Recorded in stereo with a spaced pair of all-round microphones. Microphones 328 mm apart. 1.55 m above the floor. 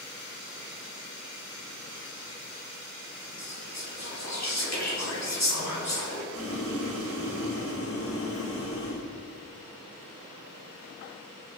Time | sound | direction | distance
3.4 | whispering | 55° left (ahead or behind) | 3.5 m
6.3 | boiling | 40° left (ahead or behind) | 1.7 m